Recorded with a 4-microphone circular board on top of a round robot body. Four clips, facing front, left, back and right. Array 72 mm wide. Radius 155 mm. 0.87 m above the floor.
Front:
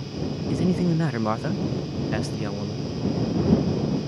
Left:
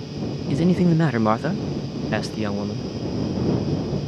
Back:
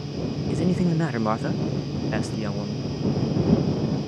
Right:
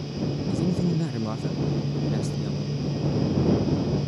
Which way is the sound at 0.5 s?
100° left.